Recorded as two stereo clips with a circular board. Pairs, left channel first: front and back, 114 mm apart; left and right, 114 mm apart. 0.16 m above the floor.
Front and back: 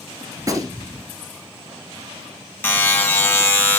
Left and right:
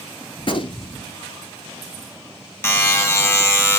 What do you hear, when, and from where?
0.4 s a gunshot: 125° left, 0.9 m
2.6 s a buzzer: 50° left, 1.3 m